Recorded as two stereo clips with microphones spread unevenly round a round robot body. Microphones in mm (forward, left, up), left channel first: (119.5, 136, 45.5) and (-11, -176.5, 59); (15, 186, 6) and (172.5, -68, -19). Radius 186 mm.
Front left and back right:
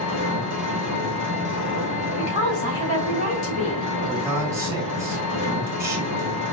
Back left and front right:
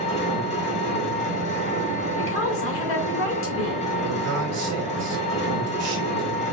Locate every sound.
0.0 s an engine running: 55° left, 2 m
2.2 s a woman speaking: 75° left, 2.5 m
4.1 s a man speaking: 30° right, 2 m